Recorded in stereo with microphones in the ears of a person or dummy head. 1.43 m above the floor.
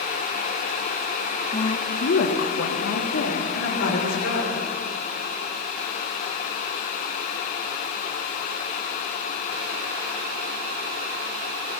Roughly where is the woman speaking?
Left.